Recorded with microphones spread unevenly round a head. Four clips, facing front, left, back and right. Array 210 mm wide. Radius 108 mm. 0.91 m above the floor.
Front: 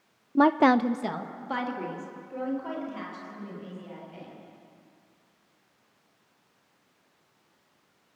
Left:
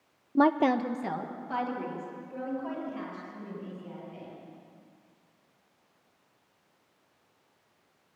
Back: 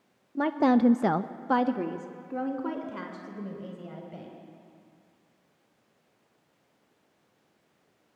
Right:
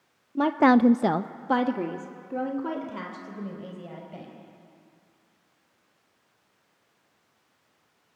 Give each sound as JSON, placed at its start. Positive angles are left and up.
{"t": 0.3, "sound": "a woman speaking", "azimuth_deg": 30, "distance_m": 0.7}